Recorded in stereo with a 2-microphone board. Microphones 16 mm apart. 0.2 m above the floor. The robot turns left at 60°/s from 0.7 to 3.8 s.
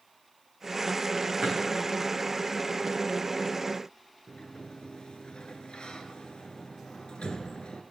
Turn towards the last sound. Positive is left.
turn(degrees=70)  # may be behind; listen again after turning